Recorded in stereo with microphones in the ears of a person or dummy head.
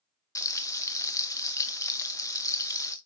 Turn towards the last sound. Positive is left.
turn(degrees=10)  # may be behind; listen again after turning